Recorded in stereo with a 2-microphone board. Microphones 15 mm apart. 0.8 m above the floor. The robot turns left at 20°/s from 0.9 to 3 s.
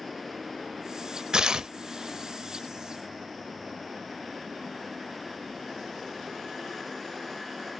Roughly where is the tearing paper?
Right.